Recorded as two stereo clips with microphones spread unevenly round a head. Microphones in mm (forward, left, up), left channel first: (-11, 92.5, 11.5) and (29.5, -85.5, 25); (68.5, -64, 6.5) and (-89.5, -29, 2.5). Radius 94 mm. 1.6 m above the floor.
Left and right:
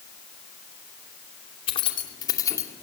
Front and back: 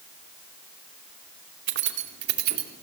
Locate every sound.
1.7 s keys jangling: 165° left, 2.5 m; by 2.8 s 175° right, 2.5 m